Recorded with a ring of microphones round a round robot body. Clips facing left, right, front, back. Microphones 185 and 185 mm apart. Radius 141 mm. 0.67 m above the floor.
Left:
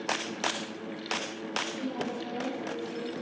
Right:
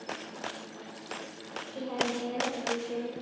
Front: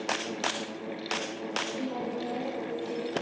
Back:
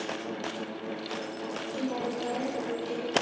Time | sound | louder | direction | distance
1.7 | a woman speaking | right 3 dB, back 3 dB | 105° right | 4 m